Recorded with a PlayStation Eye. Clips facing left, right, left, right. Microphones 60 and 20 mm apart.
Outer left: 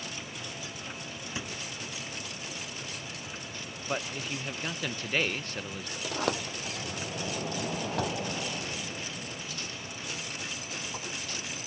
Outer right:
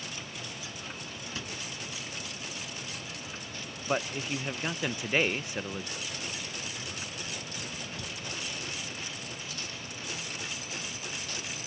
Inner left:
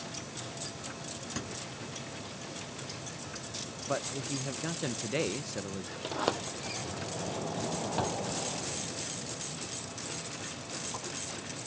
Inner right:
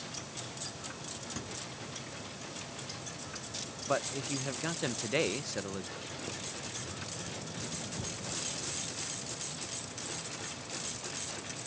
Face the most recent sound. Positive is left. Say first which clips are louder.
# outer left 8 dB, inner left 8 dB
turn(degrees=75)  # may be behind; listen again after turning